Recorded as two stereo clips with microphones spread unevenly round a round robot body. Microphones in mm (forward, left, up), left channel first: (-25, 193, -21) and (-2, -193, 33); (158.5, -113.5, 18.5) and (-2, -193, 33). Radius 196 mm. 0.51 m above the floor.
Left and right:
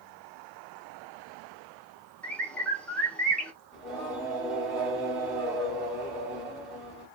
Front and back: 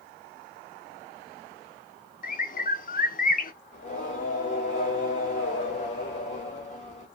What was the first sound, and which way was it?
A bird, 15° left.